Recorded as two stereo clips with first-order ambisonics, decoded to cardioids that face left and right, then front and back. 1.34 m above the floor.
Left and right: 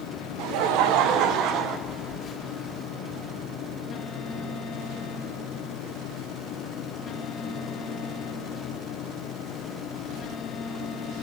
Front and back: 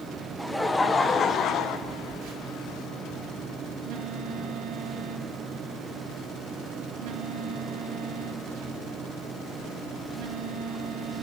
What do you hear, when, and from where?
0.4 s laughter: 95° right, 1.2 m; by 1.8 s 45° right, 1.2 m
1.9 s a phone buzzing: 155° left, 1.9 m